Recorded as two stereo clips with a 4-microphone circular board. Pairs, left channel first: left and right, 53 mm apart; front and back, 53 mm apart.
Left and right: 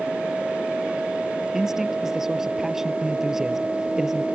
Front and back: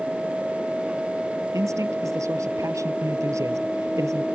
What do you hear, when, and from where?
1.5 s a man speaking: 170° right